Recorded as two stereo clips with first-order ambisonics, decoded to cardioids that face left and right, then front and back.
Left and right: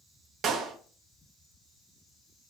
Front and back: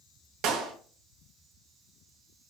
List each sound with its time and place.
0.4 s a clap: 145° right, 2 m